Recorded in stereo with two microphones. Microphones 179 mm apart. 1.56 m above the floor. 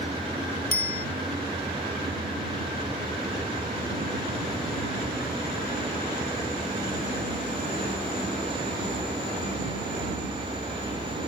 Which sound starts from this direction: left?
A bicycle bell, at 0.7 s.